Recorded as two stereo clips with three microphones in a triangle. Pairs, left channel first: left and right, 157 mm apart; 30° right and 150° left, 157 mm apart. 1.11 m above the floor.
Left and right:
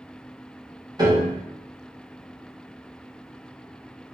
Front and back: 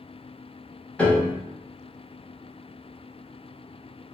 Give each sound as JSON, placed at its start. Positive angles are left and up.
{"t": 1.0, "sound": "a piano", "azimuth_deg": -100, "distance_m": 0.8}